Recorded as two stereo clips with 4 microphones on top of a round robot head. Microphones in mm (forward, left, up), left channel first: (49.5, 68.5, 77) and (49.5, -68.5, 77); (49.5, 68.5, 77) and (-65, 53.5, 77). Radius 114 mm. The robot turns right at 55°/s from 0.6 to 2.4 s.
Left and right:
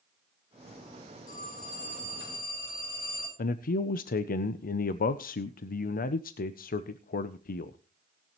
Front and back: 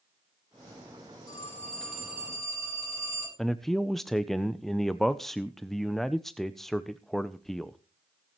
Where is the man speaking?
95° left, 0.6 m.